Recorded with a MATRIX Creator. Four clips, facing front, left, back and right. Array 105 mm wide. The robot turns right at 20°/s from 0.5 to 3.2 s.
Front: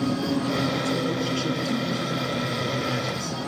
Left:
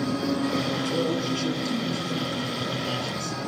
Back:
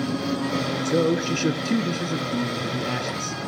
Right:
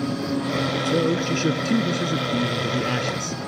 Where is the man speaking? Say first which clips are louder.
Right 4 dB, back 4 dB; 145° right, 1.9 m; by 3.4 s 100° right, 1.9 m.